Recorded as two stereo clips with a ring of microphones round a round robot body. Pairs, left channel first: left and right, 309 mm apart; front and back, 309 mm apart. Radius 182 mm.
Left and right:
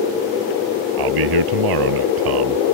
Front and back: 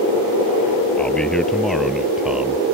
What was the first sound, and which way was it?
A man speaking, 85° right.